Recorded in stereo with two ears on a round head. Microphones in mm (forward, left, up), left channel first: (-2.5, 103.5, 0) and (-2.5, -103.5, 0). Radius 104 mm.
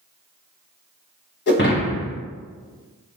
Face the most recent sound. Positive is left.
turn(degrees=45)  # may be behind; listen again after turning